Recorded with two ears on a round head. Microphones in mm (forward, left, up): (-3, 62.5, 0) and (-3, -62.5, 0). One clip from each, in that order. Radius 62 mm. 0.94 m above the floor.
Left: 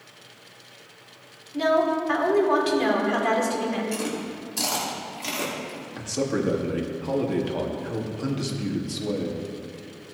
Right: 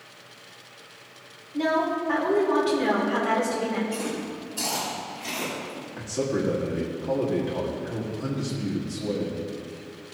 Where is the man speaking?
60° left (ahead or behind), 1.9 m.